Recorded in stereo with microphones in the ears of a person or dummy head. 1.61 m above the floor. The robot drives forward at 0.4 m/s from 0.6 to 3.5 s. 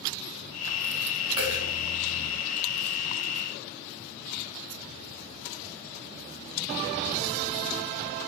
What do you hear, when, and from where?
1.4 s a dropped coin: 20° right (ahead or behind), 2.0 m